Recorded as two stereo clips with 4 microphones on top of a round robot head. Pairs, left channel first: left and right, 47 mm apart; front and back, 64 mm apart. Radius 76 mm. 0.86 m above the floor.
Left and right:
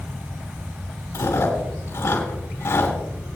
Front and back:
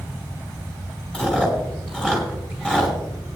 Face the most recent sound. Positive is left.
turn(degrees=80)